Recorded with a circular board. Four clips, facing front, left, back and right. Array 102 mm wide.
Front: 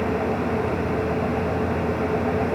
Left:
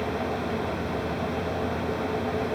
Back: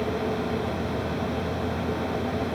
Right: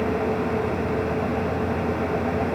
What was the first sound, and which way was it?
Only background noise.